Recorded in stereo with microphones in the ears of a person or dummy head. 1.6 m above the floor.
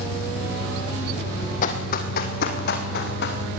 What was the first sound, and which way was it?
An engine running, 60° left (ahead or behind).